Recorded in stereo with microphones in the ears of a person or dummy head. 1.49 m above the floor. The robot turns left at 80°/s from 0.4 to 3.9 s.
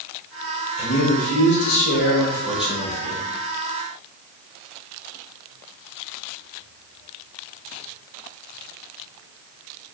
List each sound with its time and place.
0.8 s a man speaking: 140° left, 1.3 m; by 3.2 s 55° right, 1.3 m